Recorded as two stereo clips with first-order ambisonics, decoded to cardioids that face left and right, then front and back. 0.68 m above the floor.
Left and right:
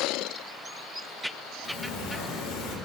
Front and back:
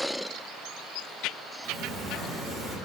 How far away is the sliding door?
About 0.8 m.